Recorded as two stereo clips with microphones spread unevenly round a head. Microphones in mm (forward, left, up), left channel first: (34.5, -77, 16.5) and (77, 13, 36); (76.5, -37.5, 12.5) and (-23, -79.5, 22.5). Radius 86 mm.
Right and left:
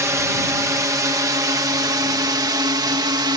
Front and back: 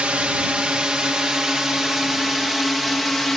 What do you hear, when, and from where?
0.0 s a drone: 125° left; by 3.4 s 110° left